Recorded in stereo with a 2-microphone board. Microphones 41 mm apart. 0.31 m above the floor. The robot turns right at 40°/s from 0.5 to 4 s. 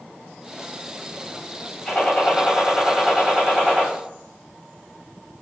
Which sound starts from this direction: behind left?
A gunshot, at 1.9 s.